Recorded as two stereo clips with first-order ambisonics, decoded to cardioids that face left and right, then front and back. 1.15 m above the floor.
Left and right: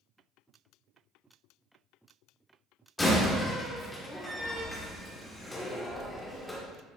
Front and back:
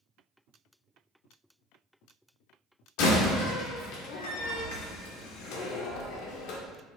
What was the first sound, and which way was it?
A door slam, 10° left.